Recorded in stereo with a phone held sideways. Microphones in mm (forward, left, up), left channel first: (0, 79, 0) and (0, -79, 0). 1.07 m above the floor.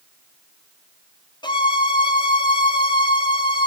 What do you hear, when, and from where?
1.4 s a violin: 25° left (ahead or behind), 1.6 m